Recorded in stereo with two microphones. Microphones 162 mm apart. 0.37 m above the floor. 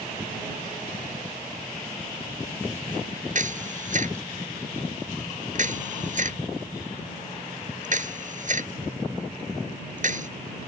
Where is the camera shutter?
55° right (ahead or behind).